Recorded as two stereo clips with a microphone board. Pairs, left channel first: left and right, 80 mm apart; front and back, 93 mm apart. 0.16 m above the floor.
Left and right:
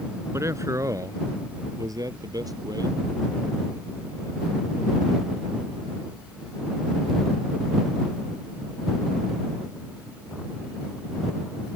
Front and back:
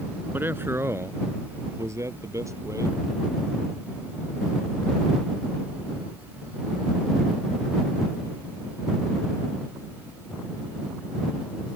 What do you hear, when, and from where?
0.3 s a man speaking: 120° right; by 3.0 s 125° right